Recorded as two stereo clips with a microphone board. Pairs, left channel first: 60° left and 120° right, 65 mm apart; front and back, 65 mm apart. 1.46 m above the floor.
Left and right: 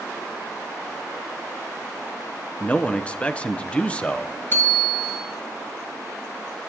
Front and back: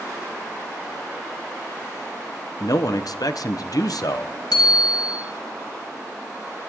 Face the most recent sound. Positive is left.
turn(degrees=0)